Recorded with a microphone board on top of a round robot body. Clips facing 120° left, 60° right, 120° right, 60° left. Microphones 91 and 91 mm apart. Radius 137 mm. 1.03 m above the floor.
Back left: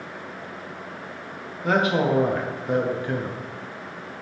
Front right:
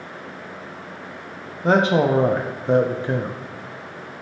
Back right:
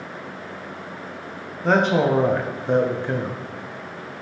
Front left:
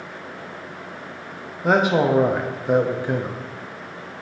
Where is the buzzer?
I don't hear a buzzer.